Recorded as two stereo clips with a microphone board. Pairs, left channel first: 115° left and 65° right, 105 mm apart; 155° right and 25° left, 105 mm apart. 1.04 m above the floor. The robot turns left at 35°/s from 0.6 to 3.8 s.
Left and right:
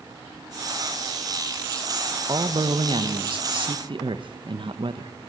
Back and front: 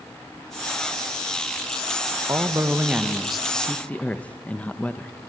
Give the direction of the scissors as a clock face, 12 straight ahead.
No scissors in this recording.